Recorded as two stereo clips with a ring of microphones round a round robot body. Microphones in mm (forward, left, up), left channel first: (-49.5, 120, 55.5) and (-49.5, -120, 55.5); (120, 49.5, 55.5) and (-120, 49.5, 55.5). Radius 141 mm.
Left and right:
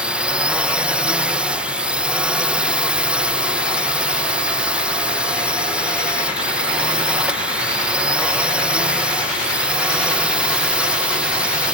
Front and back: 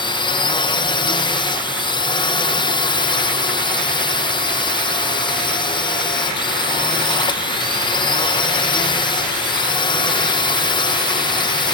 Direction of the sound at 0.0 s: 15° right.